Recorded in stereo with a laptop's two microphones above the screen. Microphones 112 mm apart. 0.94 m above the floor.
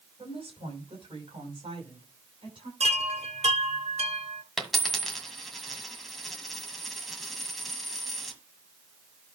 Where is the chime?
75° right (ahead or behind), 1.8 m.